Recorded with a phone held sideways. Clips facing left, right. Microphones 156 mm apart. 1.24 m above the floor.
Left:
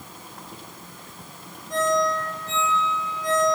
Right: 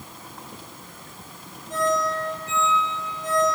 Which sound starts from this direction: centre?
A ringtone, at 1.7 s.